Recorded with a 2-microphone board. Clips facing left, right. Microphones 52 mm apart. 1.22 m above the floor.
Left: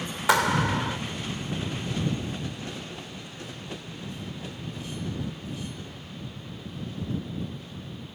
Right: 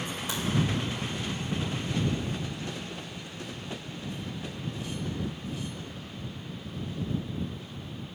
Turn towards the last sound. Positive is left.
turn(degrees=85)